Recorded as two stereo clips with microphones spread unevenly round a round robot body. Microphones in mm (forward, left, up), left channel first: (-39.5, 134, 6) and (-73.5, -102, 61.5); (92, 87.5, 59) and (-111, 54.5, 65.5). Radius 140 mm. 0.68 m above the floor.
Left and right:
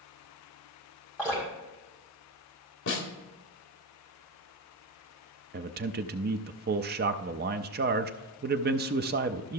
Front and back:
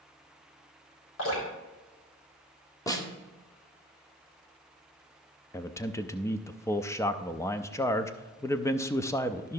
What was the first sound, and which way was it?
Dripping, 5° right.